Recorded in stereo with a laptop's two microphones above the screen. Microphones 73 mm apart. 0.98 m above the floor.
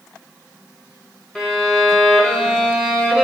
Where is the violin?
15° left (ahead or behind), 1.1 m.